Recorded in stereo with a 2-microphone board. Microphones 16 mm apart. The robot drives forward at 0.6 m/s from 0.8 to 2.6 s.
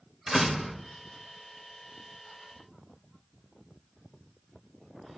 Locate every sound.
0.3 s a door slam: 30° right (ahead or behind), 1.6 m